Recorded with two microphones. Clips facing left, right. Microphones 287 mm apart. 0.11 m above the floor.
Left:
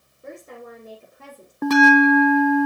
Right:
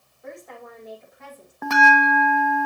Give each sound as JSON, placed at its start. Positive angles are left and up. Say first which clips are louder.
{"t": 0.2, "sound": "a woman speaking", "louder": "left 2 dB", "side_deg": 30, "distance_m": 6.0}
{"t": 1.6, "sound": "a bell", "louder": "left 9 dB", "side_deg": 45, "distance_m": 0.6}